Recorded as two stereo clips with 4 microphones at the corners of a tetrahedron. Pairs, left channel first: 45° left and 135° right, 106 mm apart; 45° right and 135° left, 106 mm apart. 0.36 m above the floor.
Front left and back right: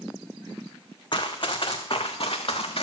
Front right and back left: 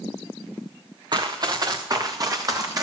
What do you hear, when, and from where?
1.1 s running footsteps: 90° left, 1.4 m; by 2.8 s 80° left, 2.5 m